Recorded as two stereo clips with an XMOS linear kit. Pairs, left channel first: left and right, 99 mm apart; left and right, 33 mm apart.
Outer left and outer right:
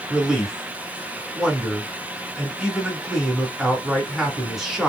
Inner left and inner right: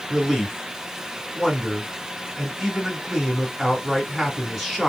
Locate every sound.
0.1 s a man speaking: 5° right (ahead or behind), 1.7 m